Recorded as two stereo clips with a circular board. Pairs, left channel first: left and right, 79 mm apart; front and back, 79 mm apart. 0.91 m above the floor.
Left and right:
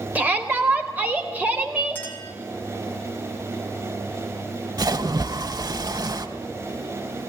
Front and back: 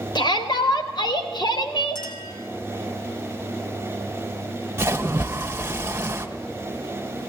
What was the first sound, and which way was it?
A shout, 20° right.